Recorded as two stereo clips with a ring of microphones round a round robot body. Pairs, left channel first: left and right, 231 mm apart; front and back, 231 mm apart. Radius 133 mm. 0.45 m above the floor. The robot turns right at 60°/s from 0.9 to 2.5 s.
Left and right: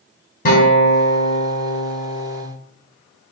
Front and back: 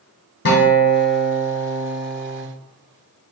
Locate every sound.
0.5 s a guitar: 40° left, 1.1 m; by 2.5 s 130° left, 1.1 m